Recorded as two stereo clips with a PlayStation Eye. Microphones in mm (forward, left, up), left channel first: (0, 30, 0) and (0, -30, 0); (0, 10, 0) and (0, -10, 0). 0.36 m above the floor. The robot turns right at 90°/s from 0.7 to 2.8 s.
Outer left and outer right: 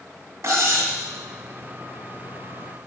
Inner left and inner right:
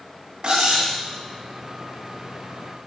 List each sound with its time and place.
0.4 s cutlery clinking: 50° right (ahead or behind), 1.2 m; by 0.9 s 65° right (ahead or behind), 1.2 m